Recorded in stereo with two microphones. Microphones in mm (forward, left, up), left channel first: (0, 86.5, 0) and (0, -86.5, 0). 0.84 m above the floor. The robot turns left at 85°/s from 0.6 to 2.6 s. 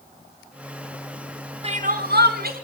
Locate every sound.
1.6 s crying: 40° right, 3 m; by 2.6 s 120° right, 3 m